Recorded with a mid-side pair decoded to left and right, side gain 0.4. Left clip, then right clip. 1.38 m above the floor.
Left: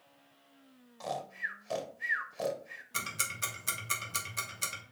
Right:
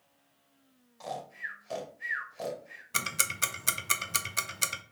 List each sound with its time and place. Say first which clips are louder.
1.0 s snoring: left 1 dB; 25° left, 0.9 m
2.9 s ticking: right 5 dB; 50° right, 0.7 m